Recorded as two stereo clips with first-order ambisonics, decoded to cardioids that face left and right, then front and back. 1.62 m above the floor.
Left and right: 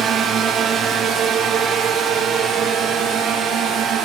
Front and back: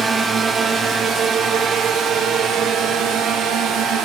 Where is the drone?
120° right; by 4.0 s 140° right.